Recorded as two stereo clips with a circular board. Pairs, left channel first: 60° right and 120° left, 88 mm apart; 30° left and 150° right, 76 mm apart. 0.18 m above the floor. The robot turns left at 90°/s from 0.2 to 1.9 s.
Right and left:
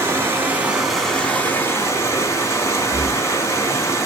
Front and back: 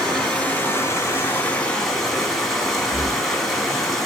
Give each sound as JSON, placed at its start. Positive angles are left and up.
{"t": 0.0, "sound": "running water", "azimuth_deg": 100, "distance_m": 1.0}
{"t": 2.9, "sound": "breathing", "azimuth_deg": -85, "distance_m": 1.6}